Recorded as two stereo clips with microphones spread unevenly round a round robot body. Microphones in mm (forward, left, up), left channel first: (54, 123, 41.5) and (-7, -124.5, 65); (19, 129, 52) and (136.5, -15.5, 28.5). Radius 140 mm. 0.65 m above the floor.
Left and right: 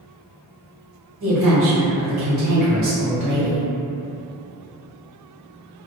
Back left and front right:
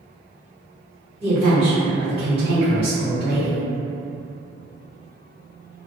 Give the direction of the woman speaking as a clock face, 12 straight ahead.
4 o'clock.